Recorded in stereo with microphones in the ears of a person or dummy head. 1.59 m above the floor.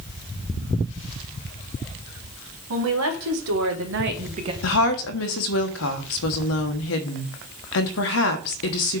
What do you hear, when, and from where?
2.7 s a woman speaking: 80° right, 1.8 m; by 4.5 s 25° right (ahead or behind), 0.7 m
4.6 s a woman speaking: 70° left (ahead or behind), 1.0 m